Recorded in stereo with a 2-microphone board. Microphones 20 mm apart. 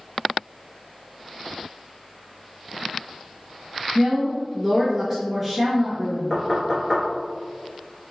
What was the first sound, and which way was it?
A woman speaking, 10° right (ahead or behind).